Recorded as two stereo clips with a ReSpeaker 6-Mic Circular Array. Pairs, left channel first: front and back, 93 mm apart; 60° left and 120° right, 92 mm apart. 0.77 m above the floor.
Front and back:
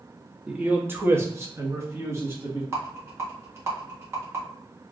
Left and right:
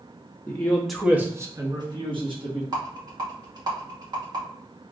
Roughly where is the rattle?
Behind right.